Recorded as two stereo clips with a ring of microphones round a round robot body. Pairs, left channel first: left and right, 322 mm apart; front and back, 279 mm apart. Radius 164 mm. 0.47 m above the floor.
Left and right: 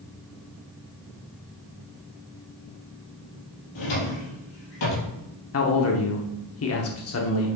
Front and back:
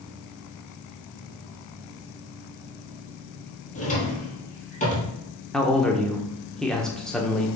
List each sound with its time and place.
3.8 s a drawer: 65° left, 3 m
5.5 s a man speaking: 85° left, 0.9 m